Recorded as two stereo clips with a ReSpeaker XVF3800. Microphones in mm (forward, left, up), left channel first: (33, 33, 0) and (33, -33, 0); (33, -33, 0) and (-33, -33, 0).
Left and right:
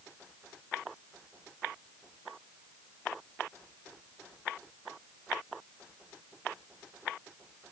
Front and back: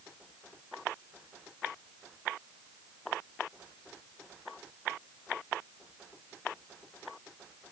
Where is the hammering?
No hammering in this recording.